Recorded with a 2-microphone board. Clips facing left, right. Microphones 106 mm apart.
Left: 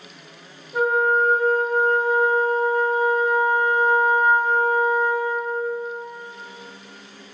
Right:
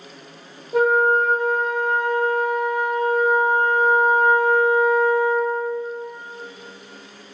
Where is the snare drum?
I don't hear a snare drum.